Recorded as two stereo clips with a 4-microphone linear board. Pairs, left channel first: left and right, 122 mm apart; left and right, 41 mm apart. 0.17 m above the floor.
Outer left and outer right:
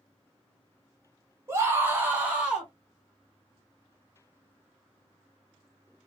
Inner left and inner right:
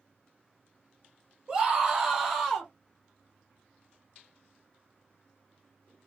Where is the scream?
25° right (ahead or behind), 1.2 m; by 2.7 s 5° right (ahead or behind), 1.3 m.